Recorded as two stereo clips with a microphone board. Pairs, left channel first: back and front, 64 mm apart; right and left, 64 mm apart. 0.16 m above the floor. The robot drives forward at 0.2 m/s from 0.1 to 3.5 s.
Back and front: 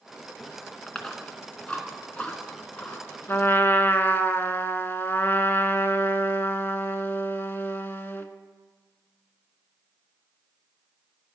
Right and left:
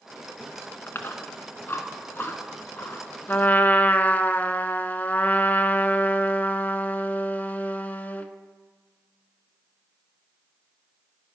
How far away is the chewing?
About 1.1 m.